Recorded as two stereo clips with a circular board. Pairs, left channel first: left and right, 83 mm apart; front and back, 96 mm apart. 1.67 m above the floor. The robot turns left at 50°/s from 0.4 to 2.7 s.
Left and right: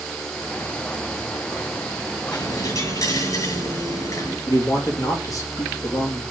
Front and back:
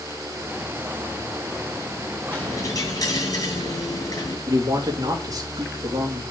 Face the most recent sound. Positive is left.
turn(degrees=130)